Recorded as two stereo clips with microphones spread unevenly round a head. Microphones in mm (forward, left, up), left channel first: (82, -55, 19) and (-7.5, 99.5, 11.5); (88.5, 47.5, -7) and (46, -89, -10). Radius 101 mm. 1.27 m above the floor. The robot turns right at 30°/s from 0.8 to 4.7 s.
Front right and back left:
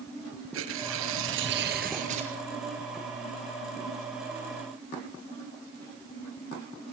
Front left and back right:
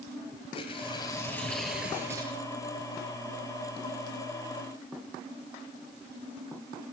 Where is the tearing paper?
135° left, 5.5 m; by 2.3 s straight behind, 5.5 m.